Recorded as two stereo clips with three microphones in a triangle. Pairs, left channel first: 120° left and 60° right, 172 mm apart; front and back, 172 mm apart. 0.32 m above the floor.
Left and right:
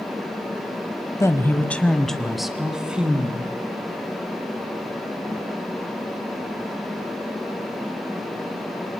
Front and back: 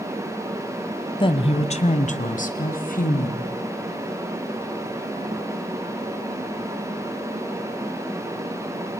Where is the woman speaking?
50° left, 1.5 m; by 3.5 s 20° left, 3 m.